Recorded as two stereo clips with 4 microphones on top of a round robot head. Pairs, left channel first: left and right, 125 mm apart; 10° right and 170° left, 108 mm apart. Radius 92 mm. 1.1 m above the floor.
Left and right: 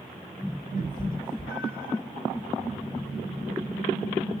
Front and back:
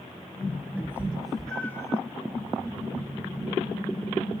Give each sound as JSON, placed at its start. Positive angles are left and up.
{"t": 0.8, "sound": "a cat meowing", "azimuth_deg": 95, "distance_m": 1.3}